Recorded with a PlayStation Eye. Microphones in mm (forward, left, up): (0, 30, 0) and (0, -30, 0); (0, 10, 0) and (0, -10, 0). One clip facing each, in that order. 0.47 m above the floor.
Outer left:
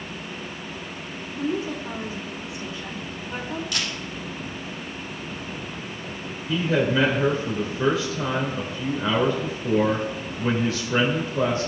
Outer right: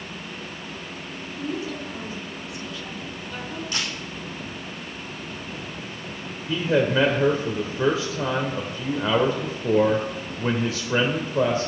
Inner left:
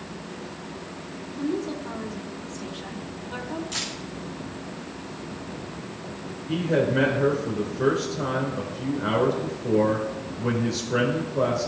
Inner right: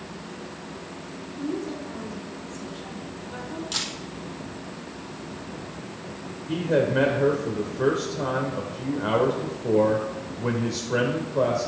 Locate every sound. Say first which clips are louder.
1.3 s a woman speaking: outer left 3 dB, inner left 2 dB; 30° left (ahead or behind), 1.7 m
3.7 s a camera shutter: even, inner right 4 dB; 35° right (ahead or behind), 4 m
6.5 s a man speaking: outer right 1 dB, even; 30° right (ahead or behind), 1.3 m